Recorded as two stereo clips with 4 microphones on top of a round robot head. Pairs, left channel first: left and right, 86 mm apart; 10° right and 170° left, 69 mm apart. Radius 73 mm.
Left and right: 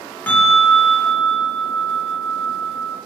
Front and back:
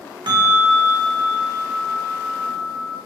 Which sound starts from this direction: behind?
A bell, at 0.3 s.